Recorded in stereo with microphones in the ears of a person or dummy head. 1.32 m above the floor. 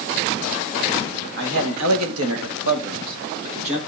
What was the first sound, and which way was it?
A man speaking, 65° right (ahead or behind).